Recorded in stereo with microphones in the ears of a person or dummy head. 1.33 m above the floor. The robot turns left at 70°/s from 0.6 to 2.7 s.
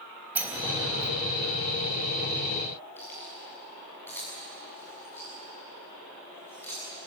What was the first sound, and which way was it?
A sliding door, 15° right (ahead or behind).